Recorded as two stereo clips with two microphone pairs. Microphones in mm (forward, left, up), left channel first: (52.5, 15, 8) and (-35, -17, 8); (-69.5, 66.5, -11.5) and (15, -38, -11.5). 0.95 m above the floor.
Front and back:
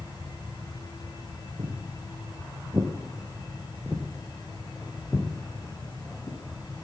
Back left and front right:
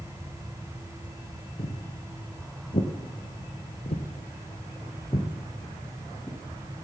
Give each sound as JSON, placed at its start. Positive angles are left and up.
{"t": 1.6, "sound": "footsteps", "azimuth_deg": 165, "distance_m": 2.5}